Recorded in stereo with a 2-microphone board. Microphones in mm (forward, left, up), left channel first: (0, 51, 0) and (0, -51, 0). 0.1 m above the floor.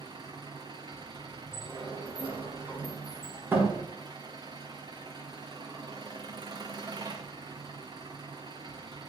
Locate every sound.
0.0 s an engine running: 45° right (ahead or behind), 2.5 m
1.5 s a sliding door: 15° right (ahead or behind), 5.5 m